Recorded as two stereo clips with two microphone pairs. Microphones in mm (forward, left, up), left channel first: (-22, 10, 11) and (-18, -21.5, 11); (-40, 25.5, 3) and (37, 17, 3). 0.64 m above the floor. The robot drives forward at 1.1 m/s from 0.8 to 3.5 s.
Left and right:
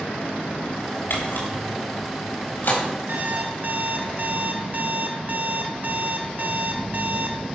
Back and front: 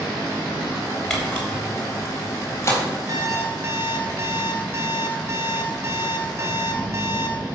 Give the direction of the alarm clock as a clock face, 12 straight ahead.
2 o'clock.